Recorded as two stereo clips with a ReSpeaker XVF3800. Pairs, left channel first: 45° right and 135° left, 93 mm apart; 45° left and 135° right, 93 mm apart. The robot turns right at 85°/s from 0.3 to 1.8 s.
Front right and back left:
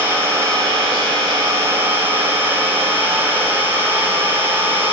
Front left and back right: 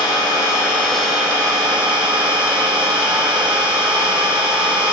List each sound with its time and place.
0.0 s an engine running: 75° left, 1.3 m; by 4.9 s 160° right, 1.3 m